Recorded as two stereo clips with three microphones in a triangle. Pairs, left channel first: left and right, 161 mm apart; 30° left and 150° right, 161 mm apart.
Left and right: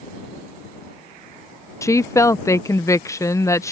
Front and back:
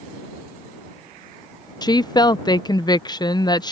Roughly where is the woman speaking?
Ahead left.